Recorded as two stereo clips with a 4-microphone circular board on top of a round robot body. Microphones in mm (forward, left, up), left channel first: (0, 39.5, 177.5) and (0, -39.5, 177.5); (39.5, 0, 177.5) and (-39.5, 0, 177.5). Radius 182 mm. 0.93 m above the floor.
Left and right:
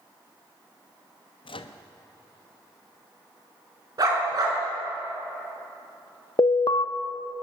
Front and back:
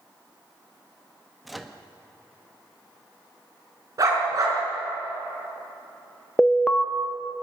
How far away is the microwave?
About 1.1 m.